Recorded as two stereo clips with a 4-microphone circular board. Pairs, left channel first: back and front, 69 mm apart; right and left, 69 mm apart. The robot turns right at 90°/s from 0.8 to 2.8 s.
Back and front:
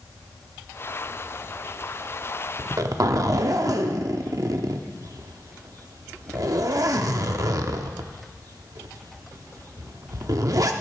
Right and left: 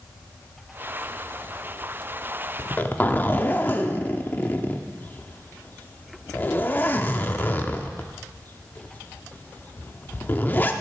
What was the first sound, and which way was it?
A zipper, 50° right.